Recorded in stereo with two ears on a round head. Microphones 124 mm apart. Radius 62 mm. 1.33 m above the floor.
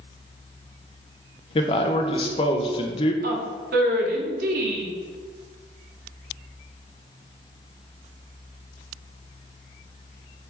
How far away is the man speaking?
About 0.6 m.